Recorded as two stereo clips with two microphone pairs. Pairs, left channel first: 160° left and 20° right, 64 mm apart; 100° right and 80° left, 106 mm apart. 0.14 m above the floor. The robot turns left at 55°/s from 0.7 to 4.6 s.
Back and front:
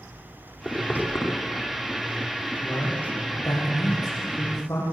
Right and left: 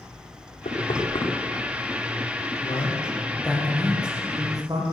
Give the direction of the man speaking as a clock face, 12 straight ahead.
4 o'clock.